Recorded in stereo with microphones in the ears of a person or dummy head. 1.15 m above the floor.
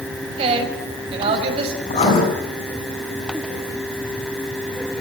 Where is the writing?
35° left (ahead or behind), 9 m.